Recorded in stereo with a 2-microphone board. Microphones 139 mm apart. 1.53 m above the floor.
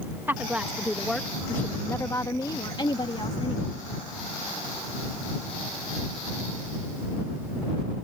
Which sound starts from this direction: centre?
A woman speaking, at 0.3 s.